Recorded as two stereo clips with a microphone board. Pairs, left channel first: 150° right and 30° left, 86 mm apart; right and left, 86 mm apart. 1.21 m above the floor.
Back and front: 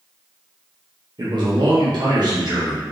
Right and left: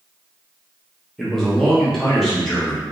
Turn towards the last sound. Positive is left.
turn(degrees=0)